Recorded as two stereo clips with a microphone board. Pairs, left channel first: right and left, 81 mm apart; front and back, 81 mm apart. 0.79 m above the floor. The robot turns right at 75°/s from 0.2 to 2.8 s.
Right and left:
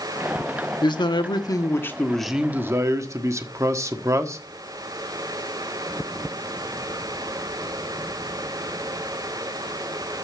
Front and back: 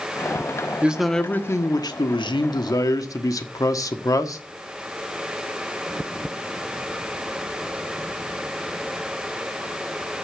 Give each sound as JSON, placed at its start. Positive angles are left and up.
{"t": 0.8, "sound": "a man speaking", "azimuth_deg": -110, "distance_m": 1.4}